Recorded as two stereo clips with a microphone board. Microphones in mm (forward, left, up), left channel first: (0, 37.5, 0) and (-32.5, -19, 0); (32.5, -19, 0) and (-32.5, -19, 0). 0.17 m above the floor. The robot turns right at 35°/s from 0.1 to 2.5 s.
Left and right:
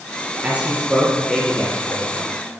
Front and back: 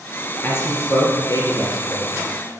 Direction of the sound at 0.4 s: 60° right.